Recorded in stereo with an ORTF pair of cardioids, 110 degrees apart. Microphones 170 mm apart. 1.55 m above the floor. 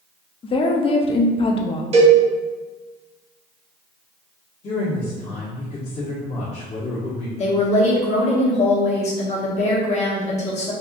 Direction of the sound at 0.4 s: 30° left.